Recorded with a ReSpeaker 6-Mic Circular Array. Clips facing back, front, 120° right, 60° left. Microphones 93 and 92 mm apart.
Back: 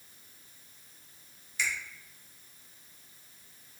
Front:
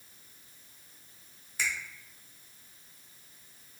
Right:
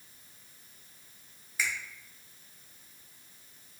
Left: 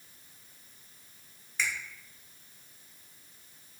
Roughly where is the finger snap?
Ahead right.